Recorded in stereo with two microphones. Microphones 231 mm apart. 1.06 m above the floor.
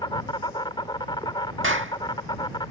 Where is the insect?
20° left (ahead or behind).